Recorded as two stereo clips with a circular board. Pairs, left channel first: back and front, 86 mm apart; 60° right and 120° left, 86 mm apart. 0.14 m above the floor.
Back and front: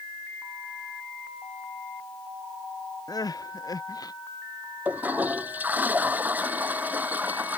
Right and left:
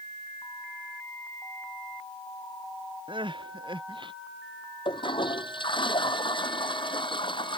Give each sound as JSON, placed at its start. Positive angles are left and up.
{"t": 3.1, "sound": "crying", "azimuth_deg": 140}
{"t": 4.8, "sound": "a toilet flushing", "azimuth_deg": -70}